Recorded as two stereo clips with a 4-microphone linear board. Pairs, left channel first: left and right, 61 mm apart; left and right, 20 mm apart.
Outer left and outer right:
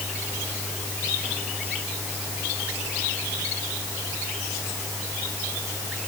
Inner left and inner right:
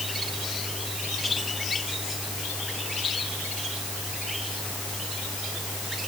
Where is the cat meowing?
I don't hear a cat meowing.